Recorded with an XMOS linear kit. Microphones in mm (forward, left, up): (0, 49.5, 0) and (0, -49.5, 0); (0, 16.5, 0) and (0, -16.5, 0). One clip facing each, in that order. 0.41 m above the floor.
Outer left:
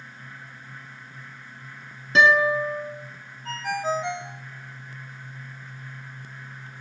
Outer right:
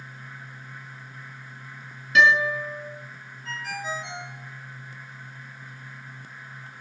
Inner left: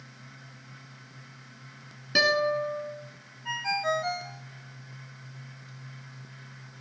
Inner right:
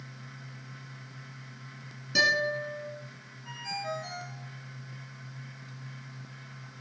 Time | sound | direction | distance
2.1 | a guitar | 35° left (ahead or behind) | 3.5 m
3.5 | a ringtone | 55° left (ahead or behind) | 1.0 m